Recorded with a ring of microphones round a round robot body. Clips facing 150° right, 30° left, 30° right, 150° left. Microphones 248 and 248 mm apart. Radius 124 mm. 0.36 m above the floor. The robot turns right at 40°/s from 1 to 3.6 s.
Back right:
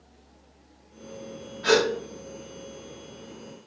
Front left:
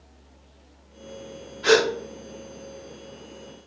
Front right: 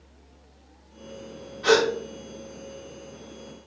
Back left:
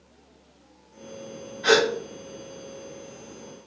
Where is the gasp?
30° left, 1.4 m; by 1.9 s 40° left, 1.4 m.